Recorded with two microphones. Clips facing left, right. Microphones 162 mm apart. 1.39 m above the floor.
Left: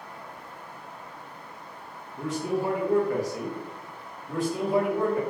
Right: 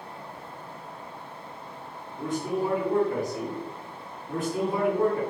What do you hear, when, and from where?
2.2 s a man speaking: 70° left (ahead or behind), 1.0 m
4.3 s a man speaking: 75° left (ahead or behind), 1.8 m